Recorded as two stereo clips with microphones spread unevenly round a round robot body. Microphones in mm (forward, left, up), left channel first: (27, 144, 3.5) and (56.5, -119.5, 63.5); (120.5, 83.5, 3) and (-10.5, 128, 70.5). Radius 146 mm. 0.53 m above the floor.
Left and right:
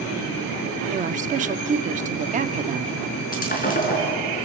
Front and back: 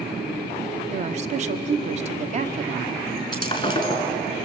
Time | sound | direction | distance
0.9 | a woman speaking | 145° right | 1.1 m
3.3 | breaking glass | 35° left | 4 m